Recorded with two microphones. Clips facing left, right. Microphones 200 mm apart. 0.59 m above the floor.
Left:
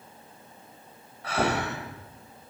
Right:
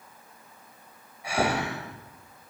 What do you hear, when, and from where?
1.2 s breathing: 15° right (ahead or behind), 2.5 m